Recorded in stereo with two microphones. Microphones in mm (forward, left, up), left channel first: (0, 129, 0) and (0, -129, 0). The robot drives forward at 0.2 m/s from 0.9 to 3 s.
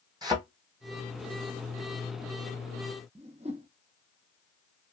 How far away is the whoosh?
About 0.7 m.